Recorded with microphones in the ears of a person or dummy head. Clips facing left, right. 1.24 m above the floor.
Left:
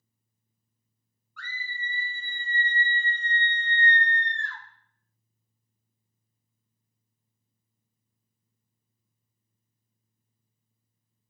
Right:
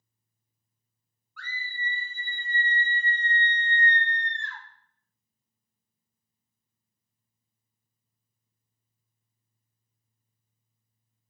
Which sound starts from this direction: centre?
A scream, at 1.4 s.